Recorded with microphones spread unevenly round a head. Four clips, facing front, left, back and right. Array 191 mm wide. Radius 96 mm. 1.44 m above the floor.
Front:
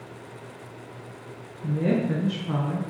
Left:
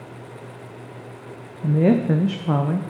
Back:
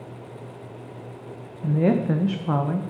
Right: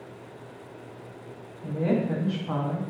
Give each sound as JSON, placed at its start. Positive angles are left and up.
{"t": 1.6, "sound": "a woman speaking", "azimuth_deg": 105, "distance_m": 0.5}